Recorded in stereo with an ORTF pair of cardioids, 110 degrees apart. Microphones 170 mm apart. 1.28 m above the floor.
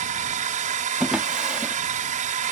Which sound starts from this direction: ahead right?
A drone, at 0.0 s.